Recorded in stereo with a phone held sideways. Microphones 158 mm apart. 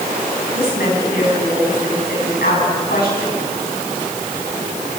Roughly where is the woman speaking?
Left.